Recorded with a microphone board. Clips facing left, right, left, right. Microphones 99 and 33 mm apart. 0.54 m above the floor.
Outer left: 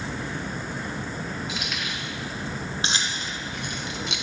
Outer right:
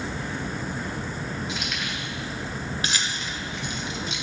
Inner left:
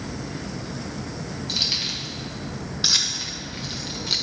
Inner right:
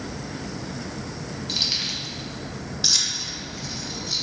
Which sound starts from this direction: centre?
Keys jangling, at 1.5 s.